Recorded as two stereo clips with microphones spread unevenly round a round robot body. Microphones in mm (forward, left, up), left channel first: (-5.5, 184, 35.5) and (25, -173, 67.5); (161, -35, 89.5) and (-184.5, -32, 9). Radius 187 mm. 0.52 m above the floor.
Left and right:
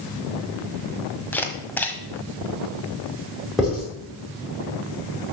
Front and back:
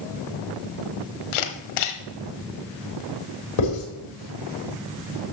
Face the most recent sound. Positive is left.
turn(degrees=5)